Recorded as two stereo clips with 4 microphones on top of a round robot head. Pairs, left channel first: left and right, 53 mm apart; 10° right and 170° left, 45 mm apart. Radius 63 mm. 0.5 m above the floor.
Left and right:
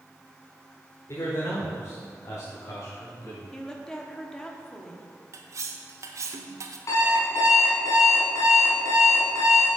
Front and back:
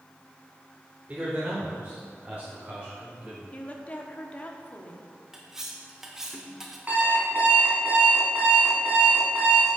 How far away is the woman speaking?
About 1.1 m.